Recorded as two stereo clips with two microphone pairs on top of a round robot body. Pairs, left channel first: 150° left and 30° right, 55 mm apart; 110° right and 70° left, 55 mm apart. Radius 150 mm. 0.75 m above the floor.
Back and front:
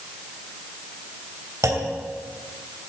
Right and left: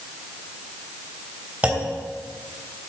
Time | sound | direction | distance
1.6 | a clunk | straight ahead | 2.5 m